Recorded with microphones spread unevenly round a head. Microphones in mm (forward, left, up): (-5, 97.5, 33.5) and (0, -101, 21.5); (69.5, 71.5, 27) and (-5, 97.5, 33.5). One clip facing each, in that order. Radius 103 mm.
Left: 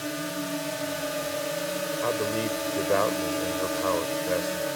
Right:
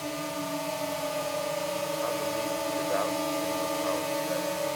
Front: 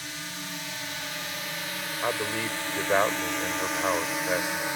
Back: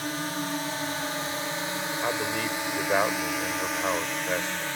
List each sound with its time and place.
0.0 s a drone: 160° left; by 4.8 s 30° left
2.0 s a man speaking: 65° left